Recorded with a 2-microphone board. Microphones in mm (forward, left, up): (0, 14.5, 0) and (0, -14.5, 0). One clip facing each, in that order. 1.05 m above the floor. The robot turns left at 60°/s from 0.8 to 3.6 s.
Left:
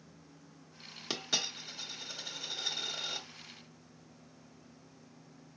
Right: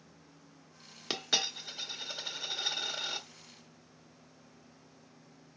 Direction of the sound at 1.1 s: 20° right (ahead or behind).